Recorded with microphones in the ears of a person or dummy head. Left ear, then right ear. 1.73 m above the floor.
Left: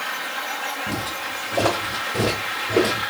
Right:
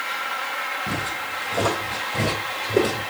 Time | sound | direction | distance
0.9 | footsteps | 20° right (ahead or behind) | 1.8 m